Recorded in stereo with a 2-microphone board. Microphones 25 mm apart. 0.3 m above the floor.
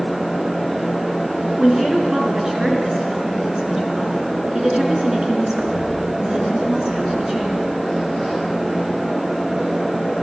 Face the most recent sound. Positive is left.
turn(degrees=-25)  # may be behind; listen again after turning